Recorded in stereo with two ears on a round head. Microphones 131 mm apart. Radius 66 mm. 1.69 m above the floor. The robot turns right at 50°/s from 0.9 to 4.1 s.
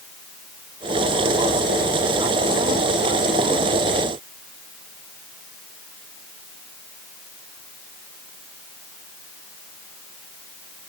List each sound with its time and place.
Only background noise.